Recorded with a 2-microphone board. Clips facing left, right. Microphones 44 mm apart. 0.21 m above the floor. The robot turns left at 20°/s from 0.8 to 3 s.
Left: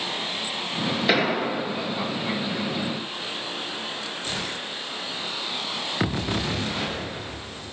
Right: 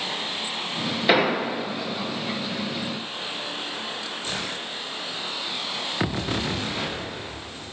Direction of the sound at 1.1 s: 10° right (ahead or behind).